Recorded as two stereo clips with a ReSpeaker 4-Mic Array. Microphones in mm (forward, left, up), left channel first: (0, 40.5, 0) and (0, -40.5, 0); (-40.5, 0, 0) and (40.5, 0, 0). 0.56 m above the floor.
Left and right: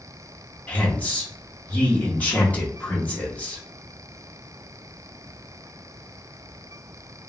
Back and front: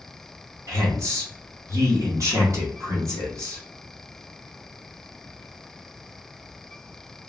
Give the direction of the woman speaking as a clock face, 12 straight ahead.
11 o'clock.